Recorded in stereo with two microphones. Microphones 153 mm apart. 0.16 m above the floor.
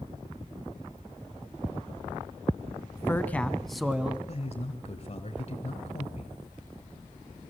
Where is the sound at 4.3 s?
50° left (ahead or behind), 3.5 m.